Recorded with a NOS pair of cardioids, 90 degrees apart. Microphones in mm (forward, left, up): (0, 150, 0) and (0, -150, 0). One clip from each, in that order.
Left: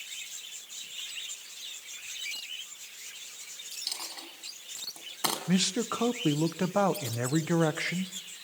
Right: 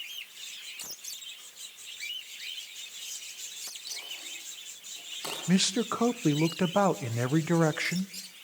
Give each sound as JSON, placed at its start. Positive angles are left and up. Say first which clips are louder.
{"t": 3.9, "sound": "a dropped coin", "louder": "left 2 dB", "azimuth_deg": 70, "distance_m": 5.0}
{"t": 5.5, "sound": "a man speaking", "louder": "right 1 dB", "azimuth_deg": -15, "distance_m": 1.2}